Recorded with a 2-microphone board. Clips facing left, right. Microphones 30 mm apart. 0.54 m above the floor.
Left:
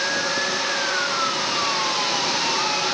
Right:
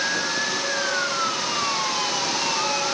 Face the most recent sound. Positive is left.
No sound to turn to.